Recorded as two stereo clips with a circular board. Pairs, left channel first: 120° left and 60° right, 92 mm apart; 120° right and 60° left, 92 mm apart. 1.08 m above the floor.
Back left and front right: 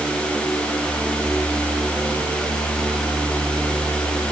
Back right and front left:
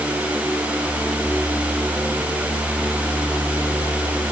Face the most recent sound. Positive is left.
No sound to turn to.